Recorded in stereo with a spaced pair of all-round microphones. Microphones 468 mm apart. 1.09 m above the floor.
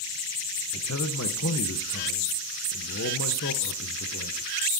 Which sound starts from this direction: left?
A man speaking, at 0.7 s.